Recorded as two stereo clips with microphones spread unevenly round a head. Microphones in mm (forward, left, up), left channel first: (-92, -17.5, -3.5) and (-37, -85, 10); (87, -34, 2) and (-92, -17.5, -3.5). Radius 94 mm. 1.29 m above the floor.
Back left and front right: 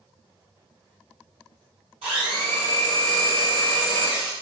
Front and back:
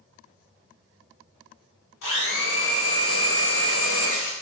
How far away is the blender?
About 1.3 m.